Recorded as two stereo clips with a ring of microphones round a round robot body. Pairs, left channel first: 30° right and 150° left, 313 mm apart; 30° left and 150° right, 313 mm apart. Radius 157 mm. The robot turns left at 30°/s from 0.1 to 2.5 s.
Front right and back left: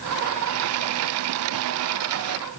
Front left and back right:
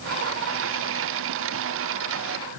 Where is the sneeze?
No sneeze in this recording.